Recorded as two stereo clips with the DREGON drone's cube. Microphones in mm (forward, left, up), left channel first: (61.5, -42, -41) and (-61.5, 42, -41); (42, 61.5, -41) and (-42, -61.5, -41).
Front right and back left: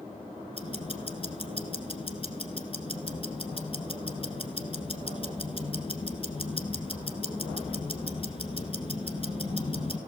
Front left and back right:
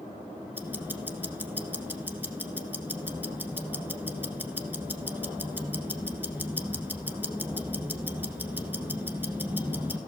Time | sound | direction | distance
0.5 | ticking | 55° right | 1.3 m